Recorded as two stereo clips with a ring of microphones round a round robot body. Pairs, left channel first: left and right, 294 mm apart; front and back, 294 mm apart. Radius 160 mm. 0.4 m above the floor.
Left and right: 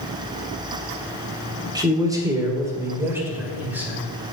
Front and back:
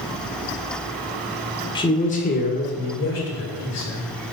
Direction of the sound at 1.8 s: 40° right.